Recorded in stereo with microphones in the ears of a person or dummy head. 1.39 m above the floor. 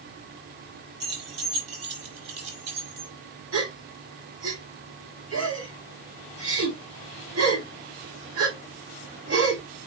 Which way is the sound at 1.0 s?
60° right (ahead or behind).